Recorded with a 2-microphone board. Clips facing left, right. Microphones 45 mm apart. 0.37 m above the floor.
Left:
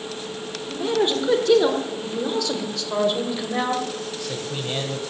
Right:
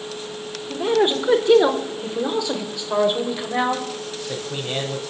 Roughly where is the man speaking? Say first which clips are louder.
Right 3 dB; centre.